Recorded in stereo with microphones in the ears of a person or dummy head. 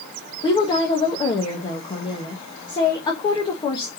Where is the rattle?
No rattle in this recording.